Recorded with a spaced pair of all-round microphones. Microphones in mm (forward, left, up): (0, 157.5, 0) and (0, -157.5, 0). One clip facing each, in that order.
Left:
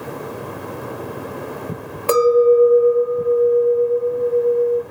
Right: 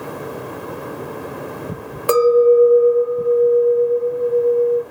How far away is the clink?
About 0.9 m.